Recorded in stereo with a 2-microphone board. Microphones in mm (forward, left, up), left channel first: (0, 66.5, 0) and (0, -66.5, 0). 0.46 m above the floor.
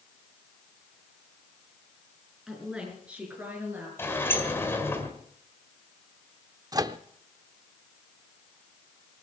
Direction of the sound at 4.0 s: 15° left (ahead or behind).